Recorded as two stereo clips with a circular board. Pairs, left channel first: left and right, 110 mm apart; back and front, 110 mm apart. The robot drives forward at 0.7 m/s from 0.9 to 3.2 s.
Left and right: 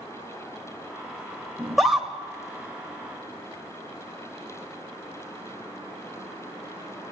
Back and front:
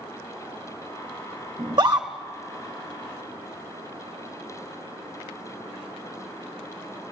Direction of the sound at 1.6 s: Straight ahead.